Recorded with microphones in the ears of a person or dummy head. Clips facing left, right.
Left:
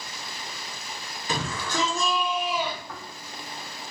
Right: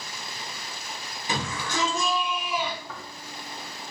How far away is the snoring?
About 1.1 m.